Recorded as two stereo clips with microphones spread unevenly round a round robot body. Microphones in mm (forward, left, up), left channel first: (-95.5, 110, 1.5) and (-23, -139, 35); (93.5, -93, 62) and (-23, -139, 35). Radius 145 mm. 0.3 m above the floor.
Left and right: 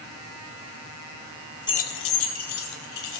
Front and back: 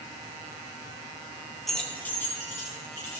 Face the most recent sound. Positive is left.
turn(degrees=100)